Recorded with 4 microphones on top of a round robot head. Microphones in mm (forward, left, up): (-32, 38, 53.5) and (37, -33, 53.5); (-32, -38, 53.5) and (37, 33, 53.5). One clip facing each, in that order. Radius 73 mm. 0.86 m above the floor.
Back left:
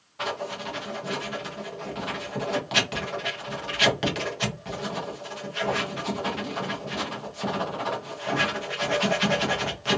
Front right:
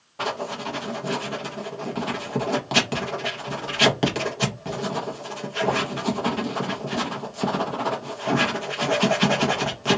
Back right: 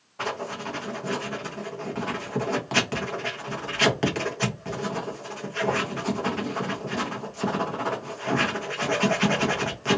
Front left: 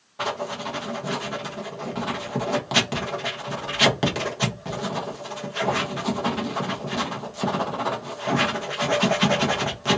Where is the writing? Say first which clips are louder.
Front right 3 dB, front left 3 dB; 25° right, 0.9 m.